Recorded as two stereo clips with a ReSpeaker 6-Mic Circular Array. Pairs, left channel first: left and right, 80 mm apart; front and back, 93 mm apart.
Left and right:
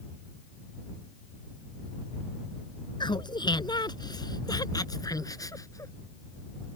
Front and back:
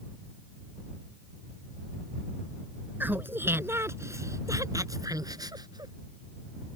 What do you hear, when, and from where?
3.0 s laughter: 110° left; by 5.9 s 140° left